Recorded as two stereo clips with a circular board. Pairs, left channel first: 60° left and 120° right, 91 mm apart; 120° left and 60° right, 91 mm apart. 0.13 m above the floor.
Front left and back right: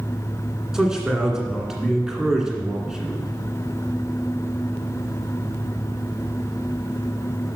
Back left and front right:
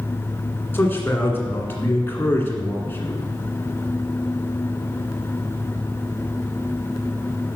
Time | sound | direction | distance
0.7 | a man speaking | 160° left | 1.7 m